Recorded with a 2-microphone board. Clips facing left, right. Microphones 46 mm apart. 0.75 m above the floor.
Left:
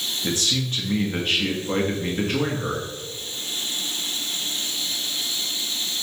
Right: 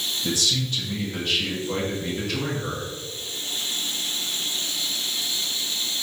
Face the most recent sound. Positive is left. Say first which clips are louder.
# left 1 dB
turn(degrees=35)  # may be behind; listen again after turning